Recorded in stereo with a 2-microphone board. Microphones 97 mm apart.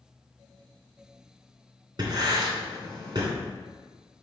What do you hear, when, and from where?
2.0 s writing: 50° right (ahead or behind), 2.5 m